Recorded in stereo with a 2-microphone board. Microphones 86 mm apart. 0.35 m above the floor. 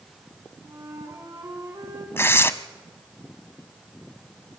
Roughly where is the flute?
Right.